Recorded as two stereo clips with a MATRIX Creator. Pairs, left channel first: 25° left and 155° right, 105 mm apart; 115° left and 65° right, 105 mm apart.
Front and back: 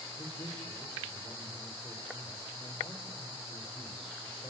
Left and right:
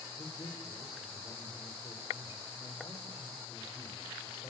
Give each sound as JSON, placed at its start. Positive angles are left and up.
{"t": 0.2, "sound": "a man speaking", "azimuth_deg": 65, "distance_m": 9.5}